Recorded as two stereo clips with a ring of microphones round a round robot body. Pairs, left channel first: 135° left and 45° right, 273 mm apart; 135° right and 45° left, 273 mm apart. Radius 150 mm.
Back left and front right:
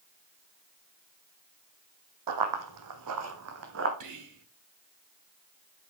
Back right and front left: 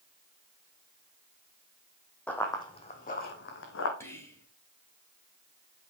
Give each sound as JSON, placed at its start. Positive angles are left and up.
{"t": 2.3, "sound": "running footsteps", "azimuth_deg": -50, "distance_m": 1.6}
{"t": 4.0, "sound": "whispering", "azimuth_deg": -55, "distance_m": 2.5}